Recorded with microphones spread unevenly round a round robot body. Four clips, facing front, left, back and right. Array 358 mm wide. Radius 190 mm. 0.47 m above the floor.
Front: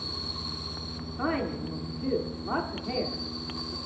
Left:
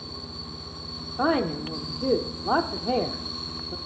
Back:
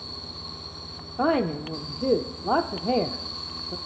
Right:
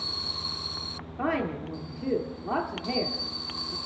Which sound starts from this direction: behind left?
A woman speaking, at 1.2 s.